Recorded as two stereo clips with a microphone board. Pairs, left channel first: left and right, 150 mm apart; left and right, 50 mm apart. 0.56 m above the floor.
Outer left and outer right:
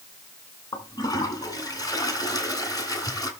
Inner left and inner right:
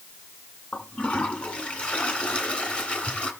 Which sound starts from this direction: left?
A toilet flushing, at 0.7 s.